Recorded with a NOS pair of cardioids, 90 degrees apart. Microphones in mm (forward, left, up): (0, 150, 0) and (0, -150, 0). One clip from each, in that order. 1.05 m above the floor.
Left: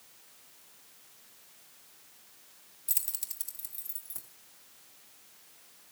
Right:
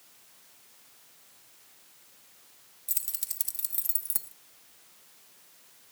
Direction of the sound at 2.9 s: 10° left.